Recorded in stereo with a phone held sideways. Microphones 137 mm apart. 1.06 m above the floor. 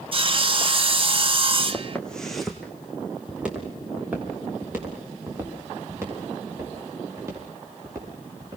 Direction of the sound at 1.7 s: 10° left (ahead or behind).